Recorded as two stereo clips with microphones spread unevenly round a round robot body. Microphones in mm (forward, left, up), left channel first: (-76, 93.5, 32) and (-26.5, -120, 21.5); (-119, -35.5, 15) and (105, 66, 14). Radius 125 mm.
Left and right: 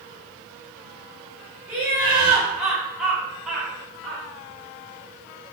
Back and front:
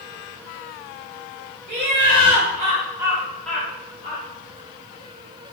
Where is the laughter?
Straight ahead, 1.9 m; by 4.2 s 170° right, 1.5 m.